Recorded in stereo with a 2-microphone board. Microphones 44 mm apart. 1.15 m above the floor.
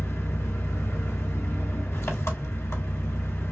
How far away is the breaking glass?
I don't hear breaking glass.